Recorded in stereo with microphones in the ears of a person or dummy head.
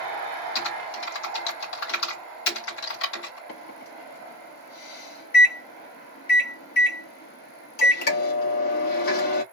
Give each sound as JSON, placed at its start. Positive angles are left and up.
{"t": 0.6, "sound": "typing on a keyboard", "side_deg": 70, "distance_m": 2.0}
{"t": 3.5, "sound": "a microwave", "side_deg": 50, "distance_m": 1.4}